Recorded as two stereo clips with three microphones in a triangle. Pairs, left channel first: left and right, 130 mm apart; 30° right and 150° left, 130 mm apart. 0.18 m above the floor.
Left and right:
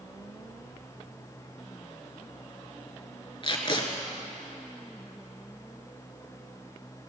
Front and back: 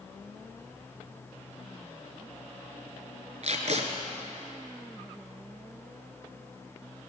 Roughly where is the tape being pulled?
Behind left.